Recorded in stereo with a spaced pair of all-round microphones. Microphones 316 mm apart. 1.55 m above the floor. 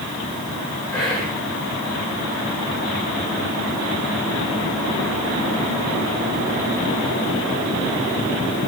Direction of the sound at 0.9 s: 5° left (ahead or behind).